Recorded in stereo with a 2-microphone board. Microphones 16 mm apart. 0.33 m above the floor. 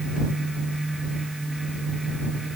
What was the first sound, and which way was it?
Only background noise.